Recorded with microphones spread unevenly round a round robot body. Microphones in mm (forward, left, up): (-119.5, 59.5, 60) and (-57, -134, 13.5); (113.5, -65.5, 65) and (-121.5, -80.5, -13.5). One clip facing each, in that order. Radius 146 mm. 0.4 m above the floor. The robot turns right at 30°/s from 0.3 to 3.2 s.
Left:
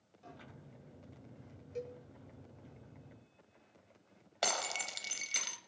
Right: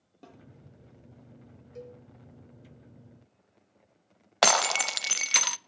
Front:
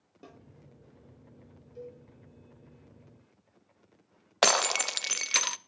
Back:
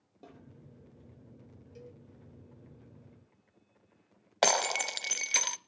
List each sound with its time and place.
0.2 s a snare drum: 75° right, 8.5 m; by 0.4 s 70° right, 8.5 m
1.8 s a cowbell: 165° left, 5 m; by 2.0 s 170° left, 5 m
4.4 s breaking glass: 80° right, 0.6 m